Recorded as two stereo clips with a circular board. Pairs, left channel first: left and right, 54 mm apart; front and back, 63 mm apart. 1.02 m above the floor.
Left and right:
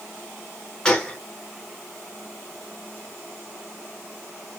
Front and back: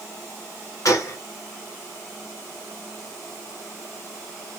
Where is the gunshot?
15° left, 0.7 m.